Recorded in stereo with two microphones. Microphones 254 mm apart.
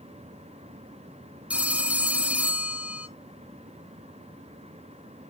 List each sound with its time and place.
1.5 s a phone ringing: 5° right (ahead or behind), 0.7 m